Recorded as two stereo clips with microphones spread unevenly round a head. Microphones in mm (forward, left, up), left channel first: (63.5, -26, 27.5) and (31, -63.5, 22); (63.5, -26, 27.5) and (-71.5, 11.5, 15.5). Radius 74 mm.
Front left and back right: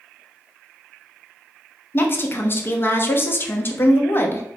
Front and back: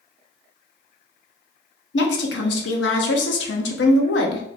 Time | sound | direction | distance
1.9 | a woman speaking | straight ahead | 0.8 m